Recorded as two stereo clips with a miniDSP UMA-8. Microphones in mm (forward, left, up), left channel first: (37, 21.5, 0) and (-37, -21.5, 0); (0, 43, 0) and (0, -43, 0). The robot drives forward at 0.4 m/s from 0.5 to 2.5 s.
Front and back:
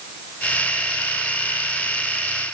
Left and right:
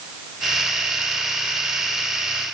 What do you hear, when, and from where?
Only background noise.